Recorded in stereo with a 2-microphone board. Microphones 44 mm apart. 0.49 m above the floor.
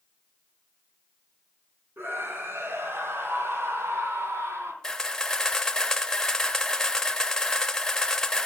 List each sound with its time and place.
2.0 s a scream: 60° right (ahead or behind), 4.5 m; by 4.7 s 80° right, 4 m
4.8 s a camera shutter: 15° left (ahead or behind), 0.8 m